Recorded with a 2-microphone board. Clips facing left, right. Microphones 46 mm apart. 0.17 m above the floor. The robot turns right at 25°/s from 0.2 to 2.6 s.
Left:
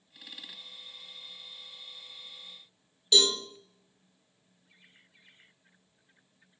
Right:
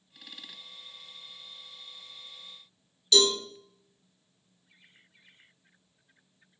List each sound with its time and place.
3.1 s a cowbell: 20° left (ahead or behind), 2 m